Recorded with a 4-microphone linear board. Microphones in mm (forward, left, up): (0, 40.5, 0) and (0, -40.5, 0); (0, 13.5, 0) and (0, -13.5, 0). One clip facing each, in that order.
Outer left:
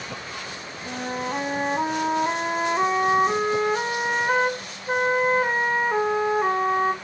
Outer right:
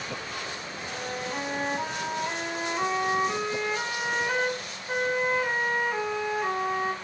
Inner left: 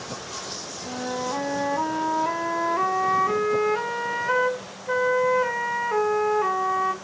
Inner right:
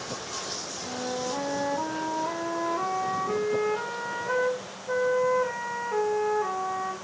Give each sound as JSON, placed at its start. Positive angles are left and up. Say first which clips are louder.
{"t": 0.8, "sound": "a flute", "louder": "outer left 6 dB, inner left 3 dB", "side_deg": 50, "distance_m": 0.6}